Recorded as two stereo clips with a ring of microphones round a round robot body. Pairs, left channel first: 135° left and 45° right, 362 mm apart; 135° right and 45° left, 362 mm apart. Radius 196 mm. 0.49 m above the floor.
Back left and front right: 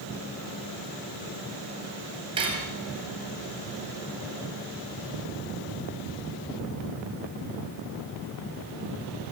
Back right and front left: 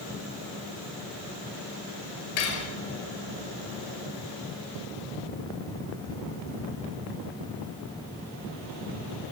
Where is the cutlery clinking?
120° right, 6 m.